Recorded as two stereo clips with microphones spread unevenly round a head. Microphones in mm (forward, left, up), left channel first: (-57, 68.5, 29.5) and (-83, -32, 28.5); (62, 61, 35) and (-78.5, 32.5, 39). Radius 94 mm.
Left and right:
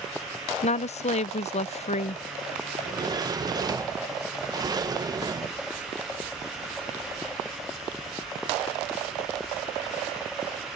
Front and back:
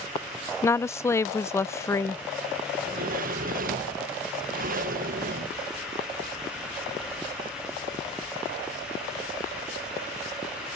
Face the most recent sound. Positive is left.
turn(degrees=-150)